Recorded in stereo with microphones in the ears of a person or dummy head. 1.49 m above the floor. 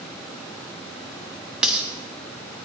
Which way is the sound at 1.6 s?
5° left (ahead or behind).